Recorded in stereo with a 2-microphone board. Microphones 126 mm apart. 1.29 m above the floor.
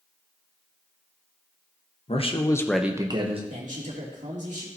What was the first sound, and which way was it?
A man speaking, 55° left (ahead or behind).